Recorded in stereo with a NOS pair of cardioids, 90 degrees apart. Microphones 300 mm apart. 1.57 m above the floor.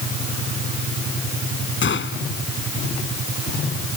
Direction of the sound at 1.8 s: 40° left.